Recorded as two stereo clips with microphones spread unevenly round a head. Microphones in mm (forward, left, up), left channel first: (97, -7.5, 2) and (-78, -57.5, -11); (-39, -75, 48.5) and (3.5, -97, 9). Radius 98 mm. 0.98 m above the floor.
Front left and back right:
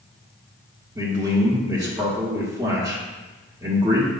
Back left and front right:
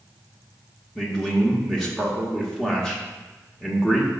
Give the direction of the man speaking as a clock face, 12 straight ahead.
3 o'clock.